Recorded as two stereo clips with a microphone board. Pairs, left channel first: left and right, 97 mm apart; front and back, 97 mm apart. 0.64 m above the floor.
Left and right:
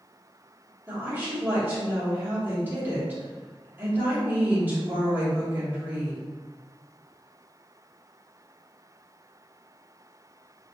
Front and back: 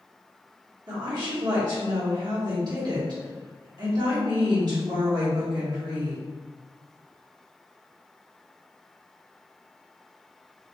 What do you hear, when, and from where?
0.9 s a woman speaking: 150° right, 1.4 m